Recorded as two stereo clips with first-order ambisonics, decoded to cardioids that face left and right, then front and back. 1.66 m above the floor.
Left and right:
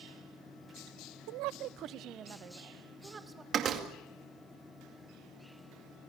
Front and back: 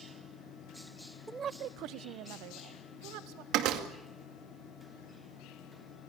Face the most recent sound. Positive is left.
turn(degrees=-145)